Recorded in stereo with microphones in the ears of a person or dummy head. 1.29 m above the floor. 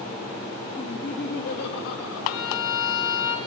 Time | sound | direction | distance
0.8 | laughter | 25° left (ahead or behind) | 1.6 m
2.3 | a violin | 75° left (ahead or behind) | 3 m